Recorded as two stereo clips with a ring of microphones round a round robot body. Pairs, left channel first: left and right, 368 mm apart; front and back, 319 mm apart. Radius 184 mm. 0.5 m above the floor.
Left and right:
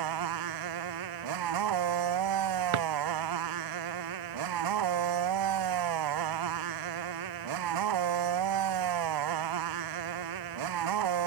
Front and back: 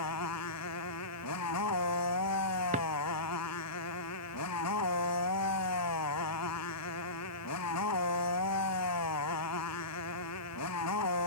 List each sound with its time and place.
0.0 s a motorcycle: 55° right
2.7 s a drawer: 110° right